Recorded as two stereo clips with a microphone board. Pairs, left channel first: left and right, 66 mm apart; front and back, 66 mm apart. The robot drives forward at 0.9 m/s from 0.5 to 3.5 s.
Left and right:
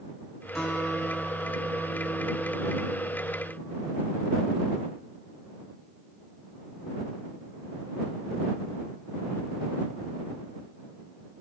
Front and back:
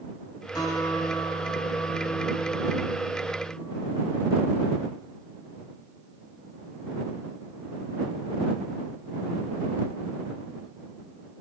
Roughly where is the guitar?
Ahead.